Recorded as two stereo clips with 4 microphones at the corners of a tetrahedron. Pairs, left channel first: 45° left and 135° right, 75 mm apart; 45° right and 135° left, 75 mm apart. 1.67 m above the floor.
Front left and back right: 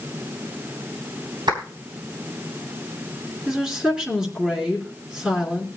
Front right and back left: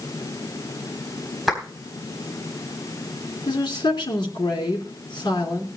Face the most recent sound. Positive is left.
turn(degrees=-55)